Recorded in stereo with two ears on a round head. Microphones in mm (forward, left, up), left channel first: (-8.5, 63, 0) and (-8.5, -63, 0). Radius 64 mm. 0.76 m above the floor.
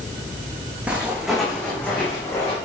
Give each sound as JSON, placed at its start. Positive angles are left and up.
{"t": 0.9, "sound": "footsteps", "side_deg": -10, "distance_m": 3.0}